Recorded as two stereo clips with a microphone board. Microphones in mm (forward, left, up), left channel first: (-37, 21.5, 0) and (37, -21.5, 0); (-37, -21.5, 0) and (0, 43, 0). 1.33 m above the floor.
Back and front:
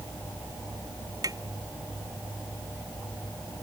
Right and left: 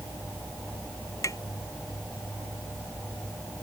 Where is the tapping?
75° right.